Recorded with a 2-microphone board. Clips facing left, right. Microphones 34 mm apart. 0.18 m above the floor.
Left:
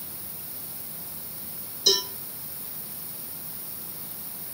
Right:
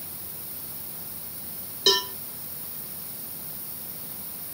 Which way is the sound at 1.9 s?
50° right (ahead or behind).